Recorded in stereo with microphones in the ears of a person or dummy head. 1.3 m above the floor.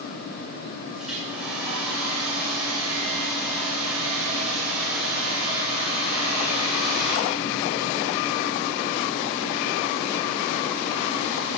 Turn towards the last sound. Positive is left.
turn(degrees=-5)  # may be behind; listen again after turning